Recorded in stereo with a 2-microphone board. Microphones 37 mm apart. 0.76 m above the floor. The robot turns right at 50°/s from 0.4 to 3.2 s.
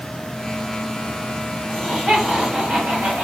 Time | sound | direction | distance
1.7 | laughter | 160° left | 1.6 m